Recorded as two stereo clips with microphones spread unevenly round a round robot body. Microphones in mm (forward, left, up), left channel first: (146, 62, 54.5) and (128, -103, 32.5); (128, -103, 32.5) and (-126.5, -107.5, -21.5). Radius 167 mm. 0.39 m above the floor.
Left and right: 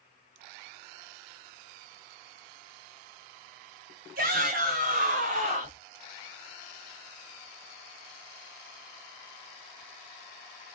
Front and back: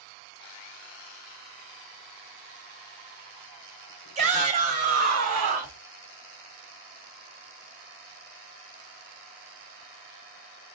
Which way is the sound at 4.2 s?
120° right.